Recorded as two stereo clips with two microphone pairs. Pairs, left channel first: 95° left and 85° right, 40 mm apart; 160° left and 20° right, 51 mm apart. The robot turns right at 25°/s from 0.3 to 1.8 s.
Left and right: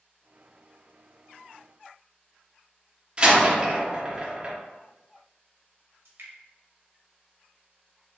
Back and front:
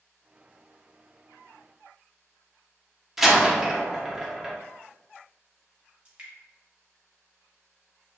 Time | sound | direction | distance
3.2 | a door slam | 100° right | 0.7 m
6.0 | dripping | 85° right | 1.0 m